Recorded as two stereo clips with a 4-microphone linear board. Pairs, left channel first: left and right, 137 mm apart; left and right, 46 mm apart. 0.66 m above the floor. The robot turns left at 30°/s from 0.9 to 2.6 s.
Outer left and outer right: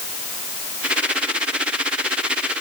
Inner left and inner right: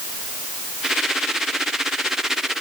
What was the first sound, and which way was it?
Only background noise.